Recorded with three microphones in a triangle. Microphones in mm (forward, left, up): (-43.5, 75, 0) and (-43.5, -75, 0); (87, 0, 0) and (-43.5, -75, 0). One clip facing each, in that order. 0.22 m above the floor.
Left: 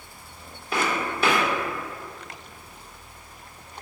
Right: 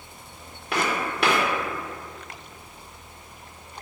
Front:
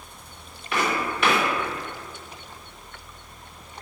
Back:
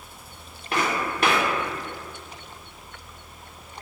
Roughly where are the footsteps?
Right.